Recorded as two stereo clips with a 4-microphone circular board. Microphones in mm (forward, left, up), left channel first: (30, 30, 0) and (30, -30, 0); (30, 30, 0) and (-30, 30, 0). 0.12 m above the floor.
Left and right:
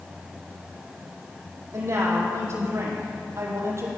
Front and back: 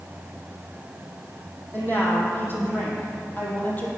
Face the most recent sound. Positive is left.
turn(degrees=-60)